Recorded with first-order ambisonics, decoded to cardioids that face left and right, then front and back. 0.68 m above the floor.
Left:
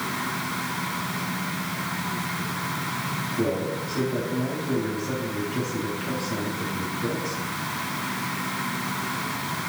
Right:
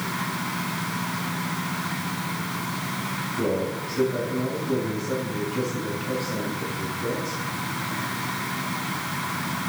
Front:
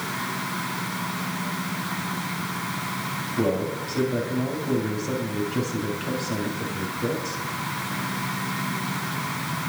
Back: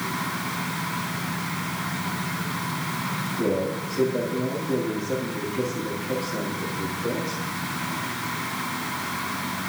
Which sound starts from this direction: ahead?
A man speaking, at 3.4 s.